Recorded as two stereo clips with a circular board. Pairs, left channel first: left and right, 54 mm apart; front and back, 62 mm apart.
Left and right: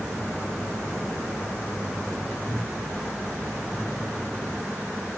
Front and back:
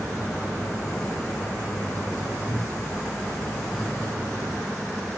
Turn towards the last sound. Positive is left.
turn(degrees=120)